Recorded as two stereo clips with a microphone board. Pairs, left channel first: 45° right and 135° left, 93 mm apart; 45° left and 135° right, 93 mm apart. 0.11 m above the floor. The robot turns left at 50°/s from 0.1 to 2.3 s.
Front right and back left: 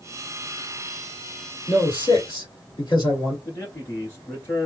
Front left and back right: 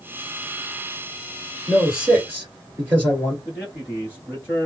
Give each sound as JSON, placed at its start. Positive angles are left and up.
{"t": 1.7, "sound": "a man speaking", "azimuth_deg": -40, "distance_m": 1.7}
{"t": 3.5, "sound": "a man speaking", "azimuth_deg": -85, "distance_m": 1.6}